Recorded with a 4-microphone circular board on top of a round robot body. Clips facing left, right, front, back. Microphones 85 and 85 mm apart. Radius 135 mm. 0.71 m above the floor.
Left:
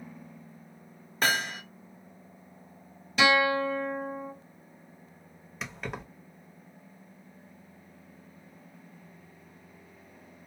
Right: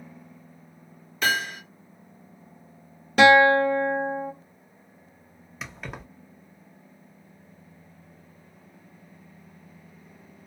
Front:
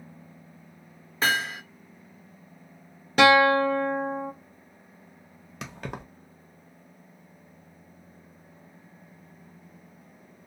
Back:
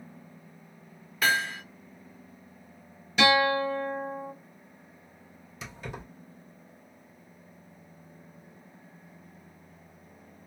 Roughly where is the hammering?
Ahead left.